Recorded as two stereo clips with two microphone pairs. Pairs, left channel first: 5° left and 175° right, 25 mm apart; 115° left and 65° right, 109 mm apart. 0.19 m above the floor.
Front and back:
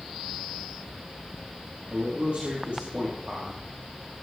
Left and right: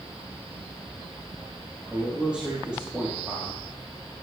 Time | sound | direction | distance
1.9 | a man speaking | 145° right | 4 m